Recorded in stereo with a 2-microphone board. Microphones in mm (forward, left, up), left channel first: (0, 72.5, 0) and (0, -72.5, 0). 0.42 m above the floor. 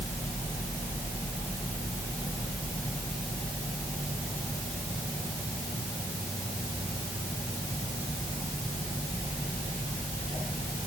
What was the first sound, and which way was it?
Only background noise.